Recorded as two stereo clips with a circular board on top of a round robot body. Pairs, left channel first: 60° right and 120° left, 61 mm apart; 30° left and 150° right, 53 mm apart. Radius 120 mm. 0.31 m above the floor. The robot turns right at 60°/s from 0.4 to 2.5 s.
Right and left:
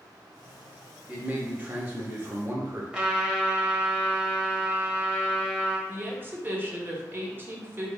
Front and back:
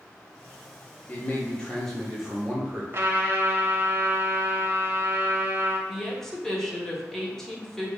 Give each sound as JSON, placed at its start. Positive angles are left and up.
{"t": 1.1, "sound": "a man speaking", "azimuth_deg": 55, "distance_m": 1.1}
{"t": 2.9, "sound": "a trumpet", "azimuth_deg": -175, "distance_m": 1.3}
{"t": 5.9, "sound": "a woman speaking", "azimuth_deg": 105, "distance_m": 1.3}